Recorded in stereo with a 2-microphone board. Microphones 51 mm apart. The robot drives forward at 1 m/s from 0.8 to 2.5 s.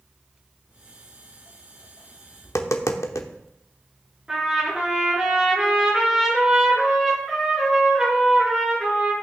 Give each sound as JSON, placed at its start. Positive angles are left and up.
{"t": 0.7, "sound": "footsteps", "side_deg": 60, "distance_m": 1.8}
{"t": 2.4, "sound": "tapping", "side_deg": 70, "distance_m": 0.9}
{"t": 4.3, "sound": "a trumpet", "side_deg": -15, "distance_m": 4.0}